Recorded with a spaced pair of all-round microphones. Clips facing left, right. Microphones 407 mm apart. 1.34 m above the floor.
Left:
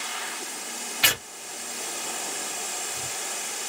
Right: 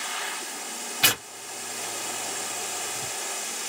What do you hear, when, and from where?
1.0 s tearing paper: 60° right (ahead or behind), 1.0 m